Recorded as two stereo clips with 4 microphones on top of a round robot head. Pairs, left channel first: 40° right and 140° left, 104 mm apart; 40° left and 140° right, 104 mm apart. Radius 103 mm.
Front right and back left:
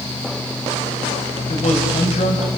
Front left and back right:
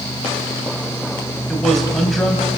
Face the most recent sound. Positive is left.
turn(degrees=-45)